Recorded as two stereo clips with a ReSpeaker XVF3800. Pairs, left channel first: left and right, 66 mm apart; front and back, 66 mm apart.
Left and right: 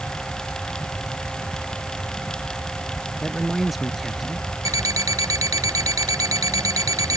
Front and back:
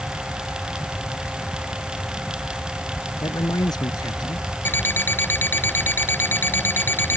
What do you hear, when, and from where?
3.2 s a man speaking: straight ahead
4.7 s an alarm clock: 60° right